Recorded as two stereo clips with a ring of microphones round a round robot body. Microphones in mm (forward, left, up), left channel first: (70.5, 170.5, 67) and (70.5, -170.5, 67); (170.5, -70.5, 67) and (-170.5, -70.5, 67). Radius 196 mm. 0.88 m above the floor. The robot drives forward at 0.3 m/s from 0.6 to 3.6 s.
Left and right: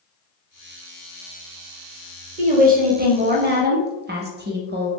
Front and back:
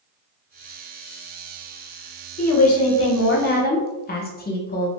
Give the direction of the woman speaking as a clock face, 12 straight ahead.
1 o'clock.